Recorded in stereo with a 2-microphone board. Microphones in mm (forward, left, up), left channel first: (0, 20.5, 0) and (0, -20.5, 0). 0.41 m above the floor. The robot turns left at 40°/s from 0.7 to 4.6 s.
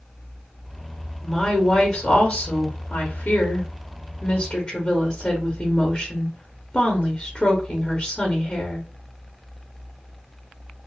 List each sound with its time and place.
1.2 s a woman speaking: 160° left, 0.9 m; by 8.9 s 25° left, 0.9 m